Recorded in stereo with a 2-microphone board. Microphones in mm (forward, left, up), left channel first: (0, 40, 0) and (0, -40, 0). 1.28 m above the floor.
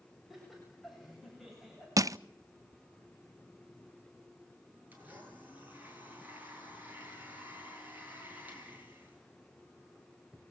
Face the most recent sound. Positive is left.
turn(degrees=-20)  # may be behind; listen again after turning